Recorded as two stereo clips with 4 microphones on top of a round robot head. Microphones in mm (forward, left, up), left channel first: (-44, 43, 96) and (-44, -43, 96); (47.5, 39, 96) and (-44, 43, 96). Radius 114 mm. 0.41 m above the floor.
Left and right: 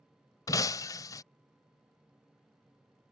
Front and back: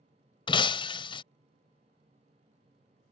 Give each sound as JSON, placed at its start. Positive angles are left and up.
{"t": 0.5, "sound": "breaking glass", "azimuth_deg": 35}